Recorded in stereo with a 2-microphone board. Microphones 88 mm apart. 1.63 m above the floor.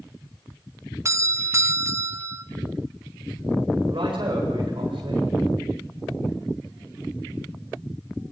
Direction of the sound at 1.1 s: 35° right (ahead or behind).